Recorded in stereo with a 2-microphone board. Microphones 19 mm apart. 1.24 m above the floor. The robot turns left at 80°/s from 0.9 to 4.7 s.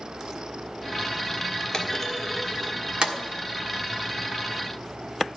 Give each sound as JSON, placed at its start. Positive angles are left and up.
{"t": 1.7, "sound": "a clunk", "side_deg": 40, "distance_m": 1.5}